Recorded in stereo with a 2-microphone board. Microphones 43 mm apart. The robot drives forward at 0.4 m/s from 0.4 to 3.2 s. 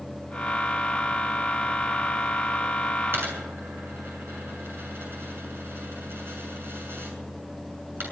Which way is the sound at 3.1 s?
60° right (ahead or behind).